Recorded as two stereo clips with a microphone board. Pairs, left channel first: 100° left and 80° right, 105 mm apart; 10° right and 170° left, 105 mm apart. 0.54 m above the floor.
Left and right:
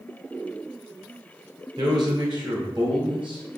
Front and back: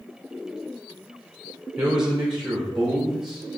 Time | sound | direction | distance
1.8 | a man speaking | 110° right | 2.5 m